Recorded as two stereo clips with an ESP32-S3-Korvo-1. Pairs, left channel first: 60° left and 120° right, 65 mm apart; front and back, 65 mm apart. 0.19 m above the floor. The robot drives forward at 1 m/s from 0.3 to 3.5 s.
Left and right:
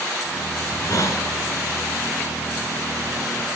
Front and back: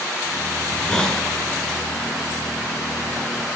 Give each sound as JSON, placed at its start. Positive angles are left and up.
{"t": 0.6, "sound": "a hiss", "azimuth_deg": 65, "distance_m": 2.0}